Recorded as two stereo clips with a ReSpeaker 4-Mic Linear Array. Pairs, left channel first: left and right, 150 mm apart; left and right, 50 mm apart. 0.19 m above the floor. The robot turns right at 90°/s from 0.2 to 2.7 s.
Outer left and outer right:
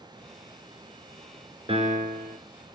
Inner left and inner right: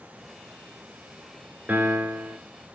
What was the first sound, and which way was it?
A piano, 140° right.